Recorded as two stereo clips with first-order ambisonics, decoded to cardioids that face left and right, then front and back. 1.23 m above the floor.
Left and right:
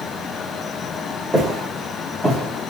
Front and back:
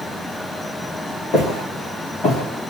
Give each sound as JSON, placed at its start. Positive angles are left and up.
{"t": 1.3, "sound": "footsteps", "azimuth_deg": -5, "distance_m": 2.0}